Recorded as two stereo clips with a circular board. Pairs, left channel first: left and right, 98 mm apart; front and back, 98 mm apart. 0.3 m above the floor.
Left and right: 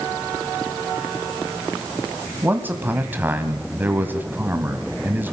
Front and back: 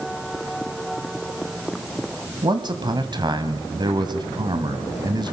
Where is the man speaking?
155° right, 1.6 m.